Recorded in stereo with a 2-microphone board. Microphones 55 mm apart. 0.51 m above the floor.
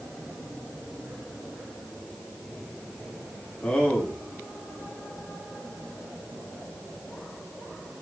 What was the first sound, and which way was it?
A man speaking, 25° left (ahead or behind).